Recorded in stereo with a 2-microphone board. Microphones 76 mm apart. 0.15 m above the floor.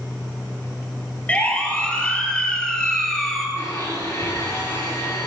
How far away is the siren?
About 4.5 m.